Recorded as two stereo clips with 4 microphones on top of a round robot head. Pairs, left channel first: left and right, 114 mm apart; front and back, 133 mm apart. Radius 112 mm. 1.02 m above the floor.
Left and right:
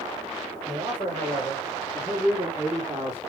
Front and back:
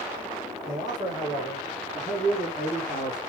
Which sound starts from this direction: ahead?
A man speaking, at 0.7 s.